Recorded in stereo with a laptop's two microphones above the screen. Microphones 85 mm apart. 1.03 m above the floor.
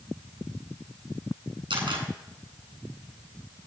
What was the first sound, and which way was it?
A camera shutter, 75° right (ahead or behind).